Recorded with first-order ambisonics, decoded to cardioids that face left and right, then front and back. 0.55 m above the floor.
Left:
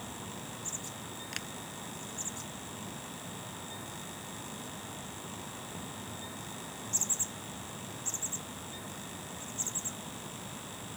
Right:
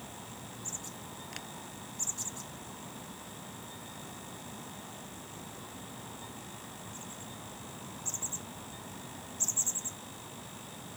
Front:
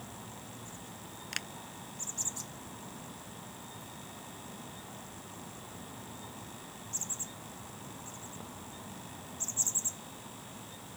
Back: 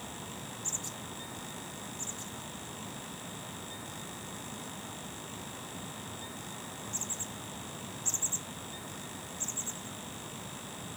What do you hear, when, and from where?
1.3 s a finger snap: 20° left